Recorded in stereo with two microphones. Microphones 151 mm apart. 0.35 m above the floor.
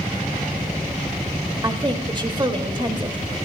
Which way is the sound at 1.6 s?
30° right (ahead or behind).